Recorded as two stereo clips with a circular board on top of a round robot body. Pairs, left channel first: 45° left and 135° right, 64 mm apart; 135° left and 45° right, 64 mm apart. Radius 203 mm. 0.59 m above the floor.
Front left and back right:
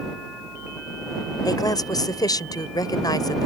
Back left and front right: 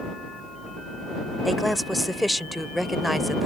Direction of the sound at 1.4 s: 40° left.